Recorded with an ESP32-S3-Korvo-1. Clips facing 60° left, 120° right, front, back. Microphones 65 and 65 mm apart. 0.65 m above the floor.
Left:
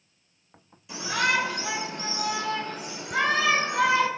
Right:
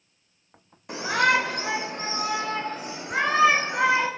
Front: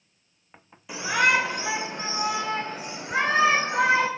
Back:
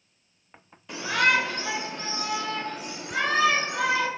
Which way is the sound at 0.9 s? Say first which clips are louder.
Right 4 dB, front 1 dB; 80° right.